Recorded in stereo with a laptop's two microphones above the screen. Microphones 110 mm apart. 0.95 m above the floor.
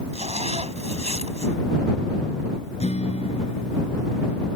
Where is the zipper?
80° right.